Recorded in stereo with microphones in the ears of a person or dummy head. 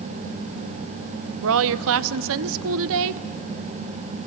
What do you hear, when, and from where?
1.4 s a woman speaking: 75° right (ahead or behind), 0.7 m